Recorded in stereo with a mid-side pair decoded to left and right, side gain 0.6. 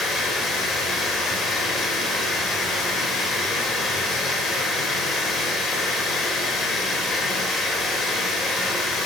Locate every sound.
0.0 s running water: 50° left, 3.5 m